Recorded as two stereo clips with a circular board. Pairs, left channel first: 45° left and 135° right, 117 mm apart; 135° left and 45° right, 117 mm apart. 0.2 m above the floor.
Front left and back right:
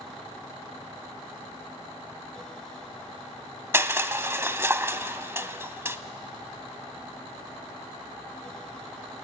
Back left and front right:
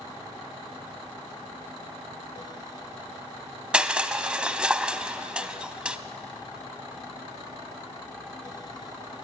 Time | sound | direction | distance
3.7 | crushing | 110° right | 0.8 m